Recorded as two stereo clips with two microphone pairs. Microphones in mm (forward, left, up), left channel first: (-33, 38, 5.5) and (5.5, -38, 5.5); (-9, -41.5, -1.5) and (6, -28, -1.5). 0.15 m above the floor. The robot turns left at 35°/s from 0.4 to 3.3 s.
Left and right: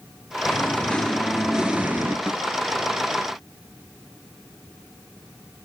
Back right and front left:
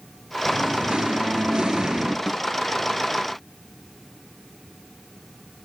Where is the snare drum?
Straight ahead, 0.8 m; by 2.4 s 5° right, 0.8 m.